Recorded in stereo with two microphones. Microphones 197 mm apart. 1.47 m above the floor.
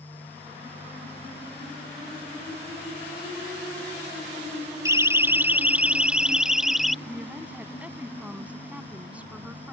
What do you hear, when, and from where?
4.8 s a siren: 15° right (ahead or behind); by 7.0 s centre (ahead or behind)
7.0 s a woman speaking: 5° right (ahead or behind)